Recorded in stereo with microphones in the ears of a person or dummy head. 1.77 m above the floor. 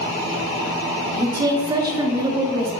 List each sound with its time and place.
1.1 s a woman speaking: 20° right (ahead or behind), 0.5 m